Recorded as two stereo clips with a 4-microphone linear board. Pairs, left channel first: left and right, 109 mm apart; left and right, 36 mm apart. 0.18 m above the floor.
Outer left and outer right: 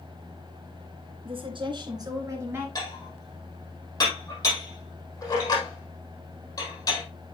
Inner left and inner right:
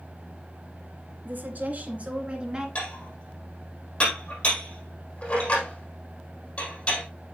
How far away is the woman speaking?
About 2.5 m.